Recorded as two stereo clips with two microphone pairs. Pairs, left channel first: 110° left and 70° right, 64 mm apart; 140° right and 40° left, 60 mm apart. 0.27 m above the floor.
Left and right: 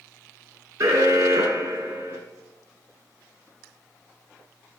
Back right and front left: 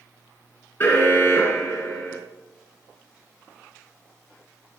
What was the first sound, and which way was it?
An alarm, 90° right.